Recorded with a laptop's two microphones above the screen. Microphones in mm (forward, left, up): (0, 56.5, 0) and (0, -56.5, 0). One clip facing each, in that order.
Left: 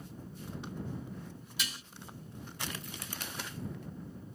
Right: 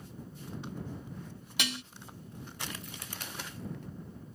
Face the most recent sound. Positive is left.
turn(degrees=-75)  # may be behind; listen again after turning